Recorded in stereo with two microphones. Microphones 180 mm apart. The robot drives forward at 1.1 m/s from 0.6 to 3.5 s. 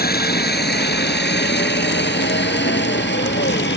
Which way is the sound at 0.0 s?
60° left (ahead or behind).